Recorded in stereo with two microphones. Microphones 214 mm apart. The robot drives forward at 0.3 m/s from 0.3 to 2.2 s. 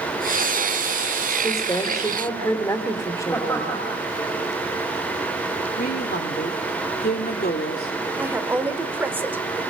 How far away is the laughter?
About 4.5 m.